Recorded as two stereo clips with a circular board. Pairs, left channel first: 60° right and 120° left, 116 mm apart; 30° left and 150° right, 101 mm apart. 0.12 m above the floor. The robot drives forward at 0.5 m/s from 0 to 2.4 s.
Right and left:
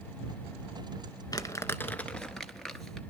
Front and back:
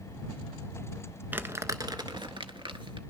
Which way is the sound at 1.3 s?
90° right.